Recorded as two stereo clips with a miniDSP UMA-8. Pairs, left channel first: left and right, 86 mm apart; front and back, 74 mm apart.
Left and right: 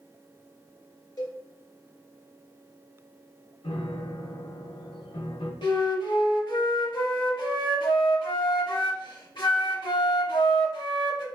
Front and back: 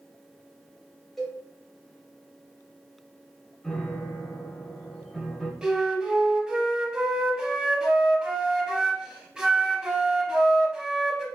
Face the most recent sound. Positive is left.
turn(degrees=105)